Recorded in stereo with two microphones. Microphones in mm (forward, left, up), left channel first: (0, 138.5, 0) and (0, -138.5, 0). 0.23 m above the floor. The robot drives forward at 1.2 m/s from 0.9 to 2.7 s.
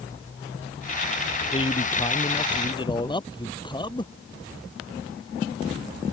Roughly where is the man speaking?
Centre.